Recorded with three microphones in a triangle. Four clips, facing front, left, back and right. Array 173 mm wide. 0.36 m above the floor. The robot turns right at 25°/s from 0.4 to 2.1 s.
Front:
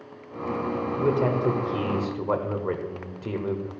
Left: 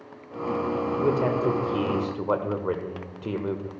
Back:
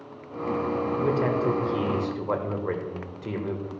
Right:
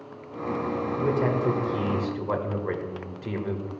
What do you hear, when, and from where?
1.0 s a man speaking: 35° left, 1.4 m; by 3.7 s 65° left, 1.4 m